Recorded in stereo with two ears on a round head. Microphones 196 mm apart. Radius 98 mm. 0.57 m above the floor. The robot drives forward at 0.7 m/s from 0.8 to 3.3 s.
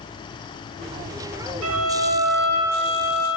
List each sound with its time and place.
1.6 s a violin: 85° right, 0.6 m; by 3.3 s 30° right (ahead or behind), 1.3 m